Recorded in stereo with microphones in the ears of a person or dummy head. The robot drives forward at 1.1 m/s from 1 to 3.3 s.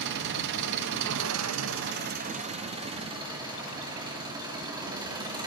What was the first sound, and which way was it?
An engine running, 60° right (ahead or behind).